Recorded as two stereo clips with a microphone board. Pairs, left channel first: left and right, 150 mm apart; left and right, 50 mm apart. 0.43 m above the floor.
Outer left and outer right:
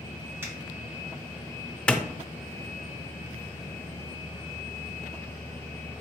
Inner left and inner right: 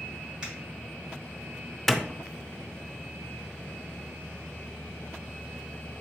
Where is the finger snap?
15° right (ahead or behind), 2.5 m.